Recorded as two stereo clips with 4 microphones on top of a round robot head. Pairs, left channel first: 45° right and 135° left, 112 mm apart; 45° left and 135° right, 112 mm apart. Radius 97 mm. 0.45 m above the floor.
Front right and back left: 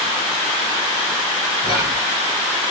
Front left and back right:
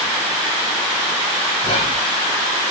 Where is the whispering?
75° left, 3.5 m.